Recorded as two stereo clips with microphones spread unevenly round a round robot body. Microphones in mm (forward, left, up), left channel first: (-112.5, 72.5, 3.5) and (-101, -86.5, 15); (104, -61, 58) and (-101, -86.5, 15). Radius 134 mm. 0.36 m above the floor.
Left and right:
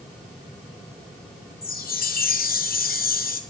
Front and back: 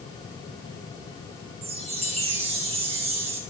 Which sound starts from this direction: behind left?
A chime, at 1.6 s.